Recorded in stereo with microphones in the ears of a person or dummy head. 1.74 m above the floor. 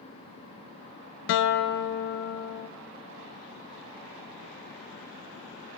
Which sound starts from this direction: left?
A guitar, at 1.3 s.